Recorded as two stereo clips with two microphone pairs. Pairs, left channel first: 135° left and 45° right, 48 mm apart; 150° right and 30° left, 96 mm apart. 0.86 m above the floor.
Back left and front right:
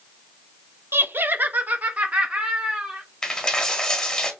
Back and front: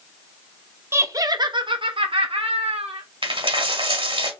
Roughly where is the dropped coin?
Ahead left.